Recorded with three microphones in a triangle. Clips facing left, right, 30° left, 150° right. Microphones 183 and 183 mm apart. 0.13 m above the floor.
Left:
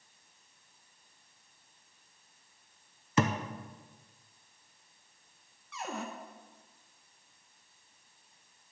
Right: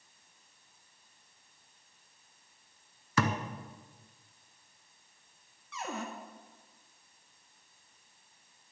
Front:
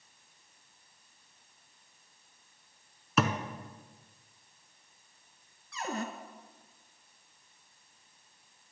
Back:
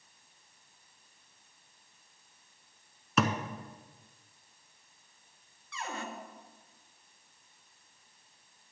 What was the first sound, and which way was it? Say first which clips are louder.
A thud: left 2 dB, even; 120° left.